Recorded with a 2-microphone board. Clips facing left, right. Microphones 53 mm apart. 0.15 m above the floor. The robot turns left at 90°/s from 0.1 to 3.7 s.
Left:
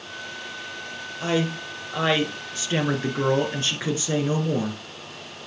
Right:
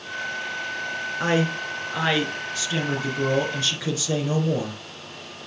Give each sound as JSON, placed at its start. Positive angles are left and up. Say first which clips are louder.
{"t": 1.2, "sound": "a man speaking", "louder": "right 1 dB", "azimuth_deg": -95, "distance_m": 2.0}